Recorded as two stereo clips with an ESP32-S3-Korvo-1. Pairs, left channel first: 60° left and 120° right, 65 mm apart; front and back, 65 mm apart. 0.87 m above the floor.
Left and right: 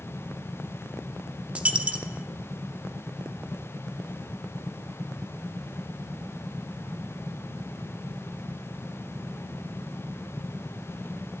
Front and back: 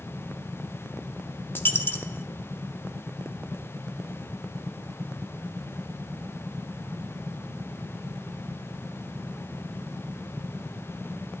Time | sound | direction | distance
1.6 | a dropped coin | 55° right | 0.5 m